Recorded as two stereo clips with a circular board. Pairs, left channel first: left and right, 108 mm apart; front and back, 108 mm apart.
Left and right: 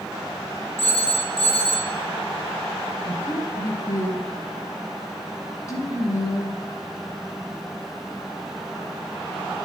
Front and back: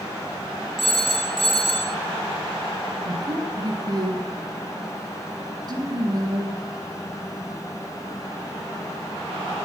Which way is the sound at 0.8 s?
85° left.